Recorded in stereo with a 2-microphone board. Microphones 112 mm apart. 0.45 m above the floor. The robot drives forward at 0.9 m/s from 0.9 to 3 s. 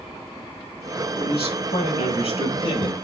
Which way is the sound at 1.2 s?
65° left (ahead or behind).